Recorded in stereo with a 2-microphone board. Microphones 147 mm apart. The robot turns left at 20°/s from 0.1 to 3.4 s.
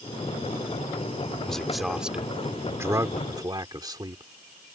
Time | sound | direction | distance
1.4 | a man speaking | 5° left | ?